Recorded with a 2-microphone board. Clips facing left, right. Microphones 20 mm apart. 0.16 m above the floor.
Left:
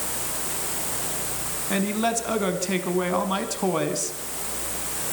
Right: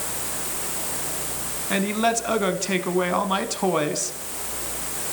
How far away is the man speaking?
About 1.6 m.